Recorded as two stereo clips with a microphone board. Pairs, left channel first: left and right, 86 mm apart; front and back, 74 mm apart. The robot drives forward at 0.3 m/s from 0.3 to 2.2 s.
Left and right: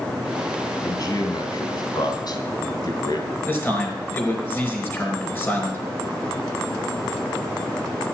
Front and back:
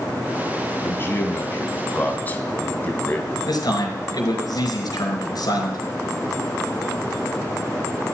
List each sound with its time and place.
0.8 s a man speaking: 55° left, 3 m; by 3.3 s 60° left, 2.5 m
3.5 s a man speaking: 25° left, 4.5 m